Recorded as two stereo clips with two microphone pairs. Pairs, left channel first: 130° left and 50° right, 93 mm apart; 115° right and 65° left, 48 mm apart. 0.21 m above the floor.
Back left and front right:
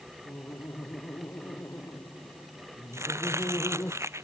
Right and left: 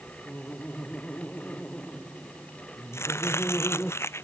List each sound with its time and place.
0.2 s laughter: 170° right
2.9 s chopping: 105° right